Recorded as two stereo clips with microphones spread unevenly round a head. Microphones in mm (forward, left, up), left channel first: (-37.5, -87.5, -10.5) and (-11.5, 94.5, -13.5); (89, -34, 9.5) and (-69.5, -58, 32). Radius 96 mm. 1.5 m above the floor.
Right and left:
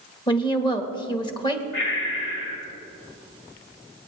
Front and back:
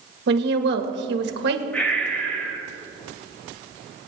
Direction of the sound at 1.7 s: 75° right.